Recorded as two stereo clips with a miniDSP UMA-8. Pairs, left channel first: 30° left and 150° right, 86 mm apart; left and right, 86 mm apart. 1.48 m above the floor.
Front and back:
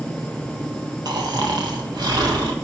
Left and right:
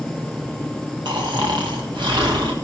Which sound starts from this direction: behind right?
Snoring, at 1.1 s.